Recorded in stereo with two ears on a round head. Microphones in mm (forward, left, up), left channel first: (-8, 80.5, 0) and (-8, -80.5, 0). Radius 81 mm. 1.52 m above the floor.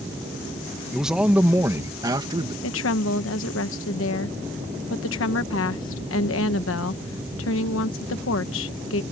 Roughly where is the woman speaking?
Left.